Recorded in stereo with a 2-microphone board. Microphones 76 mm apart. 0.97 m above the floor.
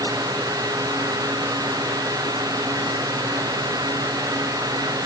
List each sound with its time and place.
Only background noise.